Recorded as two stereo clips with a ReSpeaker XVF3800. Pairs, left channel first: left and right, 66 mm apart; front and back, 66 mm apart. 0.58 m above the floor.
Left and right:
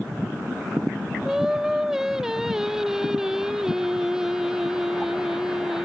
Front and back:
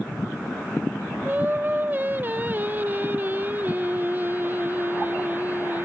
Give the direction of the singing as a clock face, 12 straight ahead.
5 o'clock.